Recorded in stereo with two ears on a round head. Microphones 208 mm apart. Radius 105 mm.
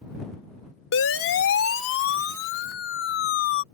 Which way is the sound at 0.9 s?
65° left (ahead or behind).